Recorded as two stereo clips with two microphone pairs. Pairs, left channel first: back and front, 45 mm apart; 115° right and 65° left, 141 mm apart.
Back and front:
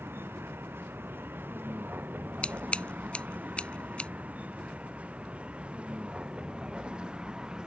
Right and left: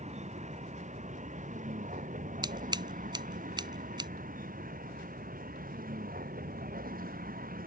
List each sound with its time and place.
0.0 s a vehicle: 30° left; by 7.7 s 70° left
2.4 s scissors: 115° left